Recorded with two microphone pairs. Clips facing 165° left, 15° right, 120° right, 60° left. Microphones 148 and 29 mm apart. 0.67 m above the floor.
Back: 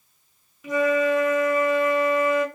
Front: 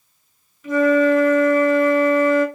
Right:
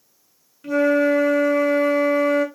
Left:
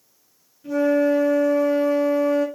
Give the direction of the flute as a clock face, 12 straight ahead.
4 o'clock.